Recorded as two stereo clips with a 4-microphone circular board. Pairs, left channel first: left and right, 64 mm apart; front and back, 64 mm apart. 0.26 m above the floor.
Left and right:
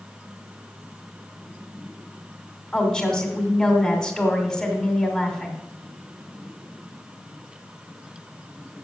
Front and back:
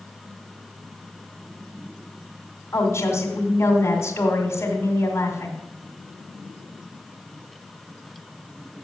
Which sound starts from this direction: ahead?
A woman speaking, at 2.7 s.